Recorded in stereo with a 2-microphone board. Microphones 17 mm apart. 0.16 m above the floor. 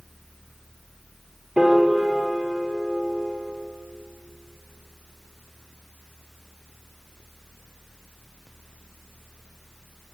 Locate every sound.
1.6 s a piano: 65° right (ahead or behind), 2.5 m